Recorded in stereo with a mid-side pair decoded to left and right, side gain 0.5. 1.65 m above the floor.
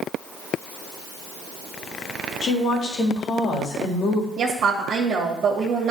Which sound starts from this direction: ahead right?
A woman speaking, at 4.4 s.